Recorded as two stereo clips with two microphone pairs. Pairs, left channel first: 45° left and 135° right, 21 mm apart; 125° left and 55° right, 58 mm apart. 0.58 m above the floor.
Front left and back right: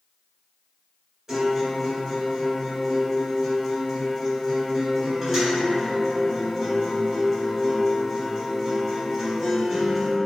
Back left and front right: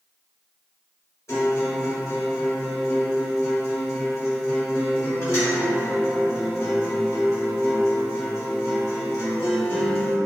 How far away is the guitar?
About 1.7 m.